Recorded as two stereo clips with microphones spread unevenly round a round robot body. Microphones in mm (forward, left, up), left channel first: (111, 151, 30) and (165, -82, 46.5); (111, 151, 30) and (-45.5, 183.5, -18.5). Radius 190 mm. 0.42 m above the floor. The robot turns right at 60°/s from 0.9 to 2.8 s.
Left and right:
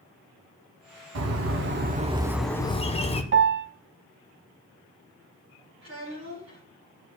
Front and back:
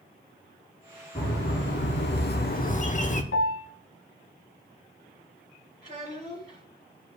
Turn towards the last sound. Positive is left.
turn(degrees=-130)